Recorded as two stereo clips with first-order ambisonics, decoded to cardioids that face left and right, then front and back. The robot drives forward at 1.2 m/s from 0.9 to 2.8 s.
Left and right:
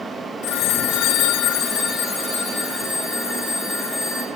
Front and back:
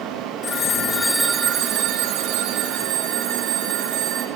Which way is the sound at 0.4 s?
60° left.